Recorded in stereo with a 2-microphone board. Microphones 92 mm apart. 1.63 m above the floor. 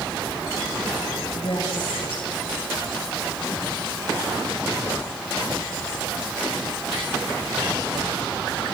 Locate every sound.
1.3 s a woman speaking: 85° left, 7.5 m